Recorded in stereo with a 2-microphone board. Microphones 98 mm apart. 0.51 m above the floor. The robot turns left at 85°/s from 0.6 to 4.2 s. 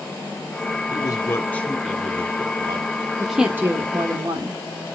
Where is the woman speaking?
5° left, 1.1 m; by 4.6 s 80° right, 1.1 m.